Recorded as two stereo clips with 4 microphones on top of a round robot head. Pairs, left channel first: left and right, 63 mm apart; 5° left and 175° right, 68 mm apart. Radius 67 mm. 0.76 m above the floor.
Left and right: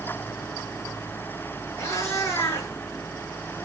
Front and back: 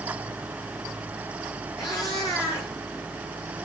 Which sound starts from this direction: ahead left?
A cat meowing, at 1.8 s.